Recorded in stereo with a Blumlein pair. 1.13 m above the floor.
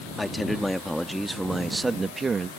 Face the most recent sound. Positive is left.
turn(degrees=-20)